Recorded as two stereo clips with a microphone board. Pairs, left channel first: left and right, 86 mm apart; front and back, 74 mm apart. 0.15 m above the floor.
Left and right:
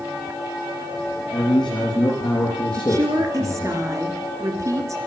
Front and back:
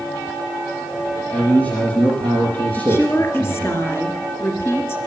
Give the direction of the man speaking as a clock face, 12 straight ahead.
10 o'clock.